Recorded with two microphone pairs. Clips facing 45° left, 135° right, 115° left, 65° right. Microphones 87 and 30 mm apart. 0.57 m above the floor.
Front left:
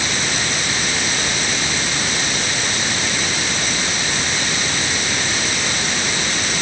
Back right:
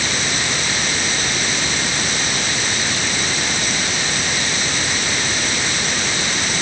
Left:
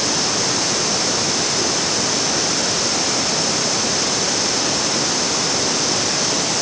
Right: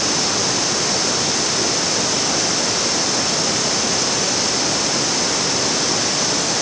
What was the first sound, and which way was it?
Only background noise.